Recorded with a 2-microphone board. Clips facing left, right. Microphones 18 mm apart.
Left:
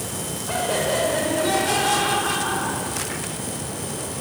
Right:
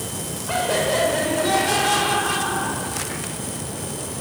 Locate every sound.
0.5 s laughter: 15° right (ahead or behind), 3.5 m; by 3.3 s 10° left (ahead or behind), 3 m